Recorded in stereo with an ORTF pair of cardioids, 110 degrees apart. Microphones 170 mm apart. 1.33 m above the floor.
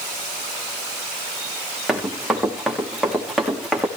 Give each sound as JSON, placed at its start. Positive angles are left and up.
{"t": 1.9, "sound": "running footsteps", "azimuth_deg": 0, "distance_m": 6.0}